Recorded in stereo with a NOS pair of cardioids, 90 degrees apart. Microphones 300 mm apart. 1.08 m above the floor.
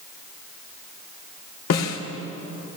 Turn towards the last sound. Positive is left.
turn(degrees=55)